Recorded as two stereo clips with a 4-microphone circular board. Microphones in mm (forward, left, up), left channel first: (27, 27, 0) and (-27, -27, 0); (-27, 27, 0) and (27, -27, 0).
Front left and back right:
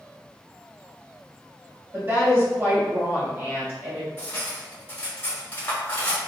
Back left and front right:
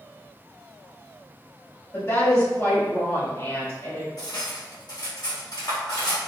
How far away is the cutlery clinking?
About 1.3 m.